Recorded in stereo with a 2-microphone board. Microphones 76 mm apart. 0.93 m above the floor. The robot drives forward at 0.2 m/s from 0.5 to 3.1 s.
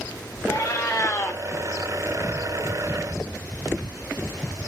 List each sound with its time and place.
0.5 s a cat meowing: 50° left (ahead or behind), 0.5 m; by 1.4 s 40° left (ahead or behind), 0.6 m